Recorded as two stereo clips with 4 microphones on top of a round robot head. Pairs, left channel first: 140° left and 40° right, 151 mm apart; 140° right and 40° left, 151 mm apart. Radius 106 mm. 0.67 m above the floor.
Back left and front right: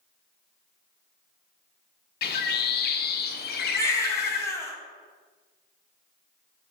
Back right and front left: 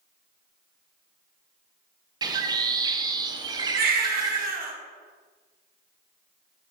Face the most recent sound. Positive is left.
turn(degrees=65)